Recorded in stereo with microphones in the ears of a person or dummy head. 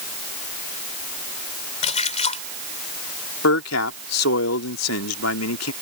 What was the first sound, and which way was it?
A splash, 40° left (ahead or behind).